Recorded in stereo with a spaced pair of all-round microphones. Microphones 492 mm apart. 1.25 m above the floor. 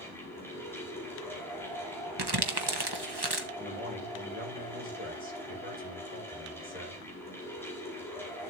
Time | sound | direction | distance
0.0 | a fan | 5° left (ahead or behind) | 4.5 m
2.2 | crumpling | 50° right (ahead or behind) | 1.3 m
3.6 | a man speaking | 15° right (ahead or behind) | 5 m